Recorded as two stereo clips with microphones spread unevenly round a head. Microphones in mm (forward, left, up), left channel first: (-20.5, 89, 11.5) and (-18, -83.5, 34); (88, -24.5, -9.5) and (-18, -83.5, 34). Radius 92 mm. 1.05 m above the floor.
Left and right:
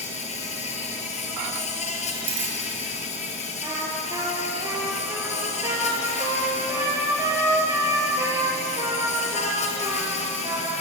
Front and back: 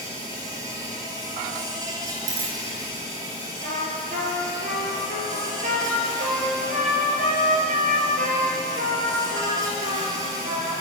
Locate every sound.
0.0 s an insect: 145° left, 3.5 m
2.3 s a dropped coin: 145° right, 7.5 m
3.6 s a trumpet: 160° right, 5 m